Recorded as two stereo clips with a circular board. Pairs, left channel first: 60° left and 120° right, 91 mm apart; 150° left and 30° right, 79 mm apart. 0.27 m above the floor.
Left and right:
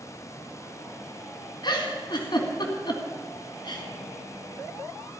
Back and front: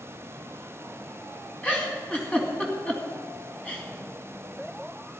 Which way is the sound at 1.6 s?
75° left.